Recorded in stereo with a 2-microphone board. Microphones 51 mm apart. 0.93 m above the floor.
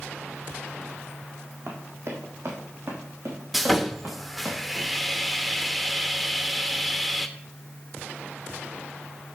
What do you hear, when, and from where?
1.7 s running footsteps: 70° right (ahead or behind), 3 m; by 4.5 s 80° right, 6 m
3.5 s sawing: 5° right (ahead or behind), 0.8 m